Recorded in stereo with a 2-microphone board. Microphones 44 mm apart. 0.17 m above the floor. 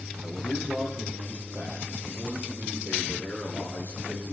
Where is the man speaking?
50° right (ahead or behind), 6 m; by 4.3 s 65° right (ahead or behind), 5 m.